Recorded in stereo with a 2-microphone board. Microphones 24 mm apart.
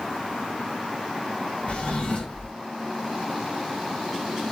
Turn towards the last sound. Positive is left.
turn(degrees=55)  # may be behind; listen again after turning